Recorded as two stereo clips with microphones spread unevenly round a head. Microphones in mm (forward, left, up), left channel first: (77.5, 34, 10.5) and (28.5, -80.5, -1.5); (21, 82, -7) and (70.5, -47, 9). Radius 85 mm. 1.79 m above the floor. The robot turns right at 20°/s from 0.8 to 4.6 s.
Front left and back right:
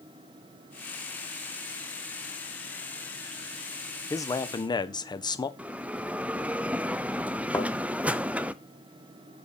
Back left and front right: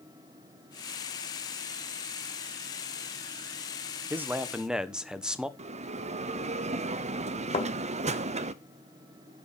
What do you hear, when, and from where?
4.1 s a man speaking: 5° left, 1.2 m; by 5.5 s 15° left, 1.2 m
5.6 s a bell: 30° right, 0.8 m
7.5 s a thud: 120° left, 1.7 m